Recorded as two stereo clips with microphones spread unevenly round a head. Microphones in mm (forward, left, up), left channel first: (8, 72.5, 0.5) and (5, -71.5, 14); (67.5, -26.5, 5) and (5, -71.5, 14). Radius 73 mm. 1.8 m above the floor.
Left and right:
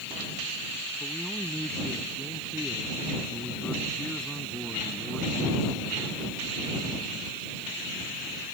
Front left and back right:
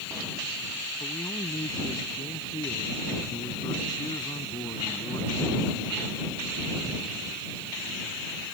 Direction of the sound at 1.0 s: Straight ahead.